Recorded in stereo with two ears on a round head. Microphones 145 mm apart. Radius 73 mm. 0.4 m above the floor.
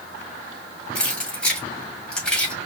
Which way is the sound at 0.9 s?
5° left (ahead or behind).